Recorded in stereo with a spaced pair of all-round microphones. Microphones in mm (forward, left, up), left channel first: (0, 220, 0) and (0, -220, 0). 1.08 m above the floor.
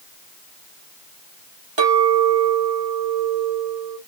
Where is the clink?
75° right (ahead or behind), 1.0 m.